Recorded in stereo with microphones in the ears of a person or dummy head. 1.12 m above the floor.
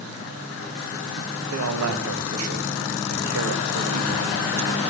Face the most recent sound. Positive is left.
turn(degrees=-85)